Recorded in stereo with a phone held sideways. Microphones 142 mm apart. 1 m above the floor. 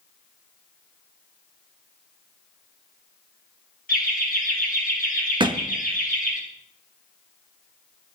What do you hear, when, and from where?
3.9 s laughter: 80° left, 3 m; by 6.4 s 75° left (ahead or behind), 4 m
5.4 s a thud: 35° right (ahead or behind), 0.7 m